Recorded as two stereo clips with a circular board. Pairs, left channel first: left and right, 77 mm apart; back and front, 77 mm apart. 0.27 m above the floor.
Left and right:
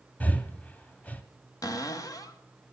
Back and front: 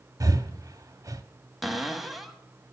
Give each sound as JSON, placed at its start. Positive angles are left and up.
{"t": 0.2, "sound": "breathing", "azimuth_deg": 25, "distance_m": 0.5}
{"t": 1.6, "sound": "a cupboard door", "azimuth_deg": 85, "distance_m": 0.7}